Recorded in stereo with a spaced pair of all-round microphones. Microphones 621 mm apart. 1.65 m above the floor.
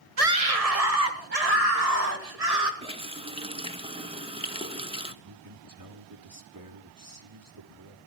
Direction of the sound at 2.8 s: 10° right (ahead or behind).